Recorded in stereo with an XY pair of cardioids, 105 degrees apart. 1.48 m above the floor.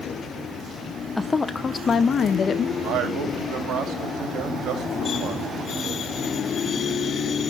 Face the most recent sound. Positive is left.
turn(degrees=-70)